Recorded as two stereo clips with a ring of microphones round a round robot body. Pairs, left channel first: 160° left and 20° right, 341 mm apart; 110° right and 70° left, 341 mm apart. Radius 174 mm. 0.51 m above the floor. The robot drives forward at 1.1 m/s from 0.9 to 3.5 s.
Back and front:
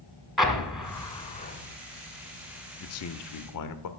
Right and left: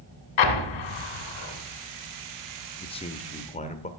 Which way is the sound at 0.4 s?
110° right.